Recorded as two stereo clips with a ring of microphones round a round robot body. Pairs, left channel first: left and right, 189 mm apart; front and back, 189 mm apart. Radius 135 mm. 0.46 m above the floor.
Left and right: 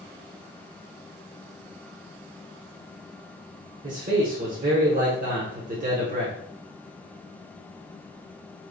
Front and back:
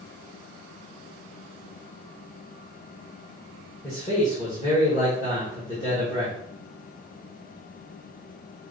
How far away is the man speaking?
About 1.2 m.